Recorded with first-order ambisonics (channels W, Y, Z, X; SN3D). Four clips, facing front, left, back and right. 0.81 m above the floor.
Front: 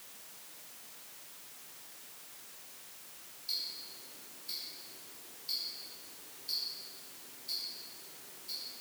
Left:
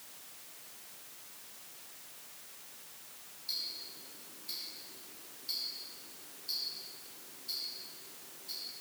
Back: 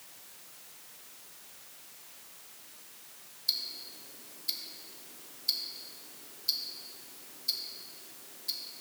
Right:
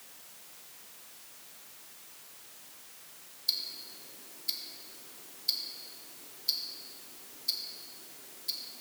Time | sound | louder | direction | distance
3.5 | ticking | right 5 dB, back 5 dB | 135° right | 0.9 m